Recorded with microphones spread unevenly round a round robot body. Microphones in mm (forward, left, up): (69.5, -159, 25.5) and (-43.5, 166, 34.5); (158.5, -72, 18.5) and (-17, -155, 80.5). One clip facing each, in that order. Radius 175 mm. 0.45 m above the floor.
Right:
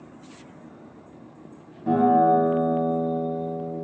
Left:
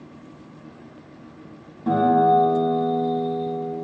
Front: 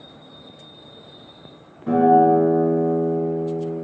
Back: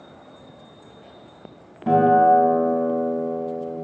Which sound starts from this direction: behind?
A guitar, at 1.9 s.